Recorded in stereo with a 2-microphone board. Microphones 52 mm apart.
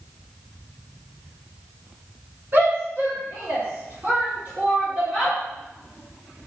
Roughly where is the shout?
Right.